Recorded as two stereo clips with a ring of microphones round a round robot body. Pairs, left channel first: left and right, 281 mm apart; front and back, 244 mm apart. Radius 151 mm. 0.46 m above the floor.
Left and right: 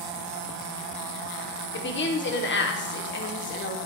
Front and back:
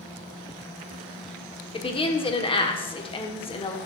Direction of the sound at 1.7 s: 60° left.